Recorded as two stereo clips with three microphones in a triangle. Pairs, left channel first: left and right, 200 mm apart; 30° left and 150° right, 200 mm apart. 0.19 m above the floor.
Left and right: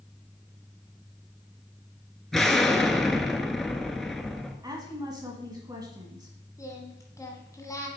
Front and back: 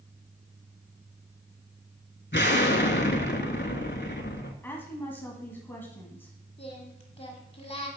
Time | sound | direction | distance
2.3 | an explosion | straight ahead | 0.8 m
4.6 | a woman speaking | 40° right | 1.3 m
6.6 | singing | 30° left | 1.3 m